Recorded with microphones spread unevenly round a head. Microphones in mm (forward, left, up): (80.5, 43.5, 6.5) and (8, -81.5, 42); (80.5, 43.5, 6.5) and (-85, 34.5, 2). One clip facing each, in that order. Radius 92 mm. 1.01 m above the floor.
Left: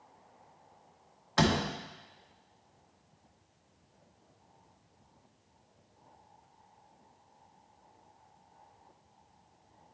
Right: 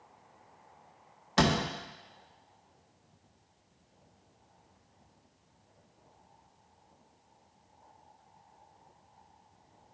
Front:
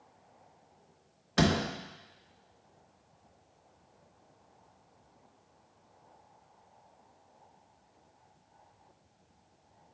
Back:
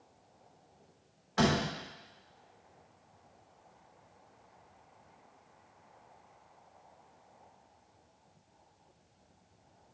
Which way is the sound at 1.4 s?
55° right.